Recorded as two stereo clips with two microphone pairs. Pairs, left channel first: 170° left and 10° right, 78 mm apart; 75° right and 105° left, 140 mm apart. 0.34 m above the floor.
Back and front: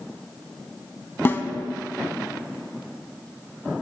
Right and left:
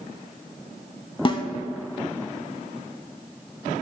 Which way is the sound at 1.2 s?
130° right.